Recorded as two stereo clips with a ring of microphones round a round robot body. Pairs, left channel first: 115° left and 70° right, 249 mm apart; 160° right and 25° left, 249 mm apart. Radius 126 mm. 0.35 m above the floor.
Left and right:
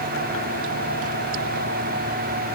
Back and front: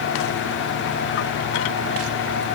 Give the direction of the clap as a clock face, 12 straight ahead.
No clap in this recording.